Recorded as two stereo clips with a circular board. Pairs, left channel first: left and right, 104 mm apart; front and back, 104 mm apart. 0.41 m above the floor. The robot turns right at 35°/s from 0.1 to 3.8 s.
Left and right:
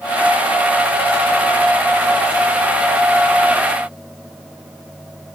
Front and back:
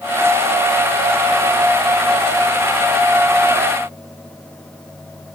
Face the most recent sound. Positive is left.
No sound to turn to.